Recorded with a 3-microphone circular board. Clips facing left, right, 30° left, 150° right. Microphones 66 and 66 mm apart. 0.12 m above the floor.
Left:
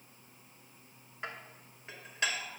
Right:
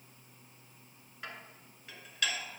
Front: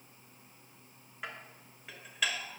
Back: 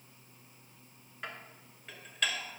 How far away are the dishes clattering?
About 0.8 m.